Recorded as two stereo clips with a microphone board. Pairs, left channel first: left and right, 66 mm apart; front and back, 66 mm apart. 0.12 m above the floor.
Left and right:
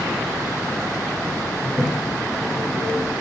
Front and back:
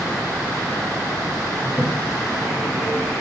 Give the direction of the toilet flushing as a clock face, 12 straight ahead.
8 o'clock.